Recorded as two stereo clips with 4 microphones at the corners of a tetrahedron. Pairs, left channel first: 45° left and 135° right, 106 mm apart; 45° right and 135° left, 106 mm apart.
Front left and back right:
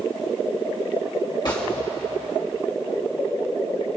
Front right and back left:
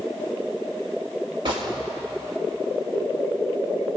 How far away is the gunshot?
About 2.5 m.